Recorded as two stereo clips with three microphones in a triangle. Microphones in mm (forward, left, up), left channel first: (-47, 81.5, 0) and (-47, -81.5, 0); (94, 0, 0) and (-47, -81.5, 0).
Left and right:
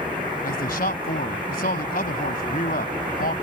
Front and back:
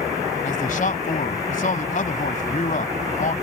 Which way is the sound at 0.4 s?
65° left.